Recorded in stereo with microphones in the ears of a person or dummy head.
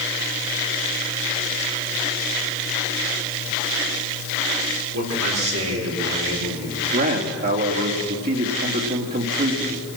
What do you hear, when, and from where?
4.9 s a man speaking: 75° right (ahead or behind), 6.5 m; by 6.8 s 90° right, 6.5 m
6.9 s a man speaking: 50° right (ahead or behind), 3.5 m